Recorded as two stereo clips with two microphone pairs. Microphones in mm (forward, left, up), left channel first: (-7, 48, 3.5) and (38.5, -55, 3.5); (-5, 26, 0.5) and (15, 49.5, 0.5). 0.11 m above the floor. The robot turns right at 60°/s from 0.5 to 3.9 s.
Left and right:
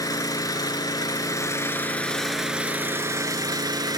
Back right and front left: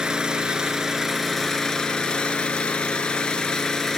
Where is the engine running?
95° left, 1.0 m; by 4.0 s 60° right, 1.0 m.